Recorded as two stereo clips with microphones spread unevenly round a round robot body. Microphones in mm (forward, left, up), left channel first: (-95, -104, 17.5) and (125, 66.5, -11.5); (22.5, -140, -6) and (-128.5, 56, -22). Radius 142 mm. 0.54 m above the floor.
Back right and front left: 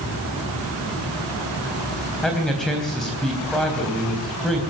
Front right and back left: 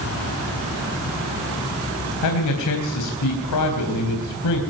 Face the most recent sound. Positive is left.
turn(degrees=-55)